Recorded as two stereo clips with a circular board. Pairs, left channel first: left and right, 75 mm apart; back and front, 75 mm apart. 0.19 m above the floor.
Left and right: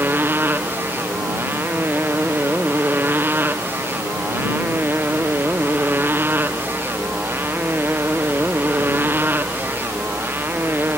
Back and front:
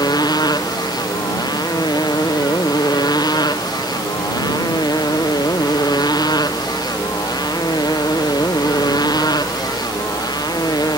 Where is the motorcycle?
150° right.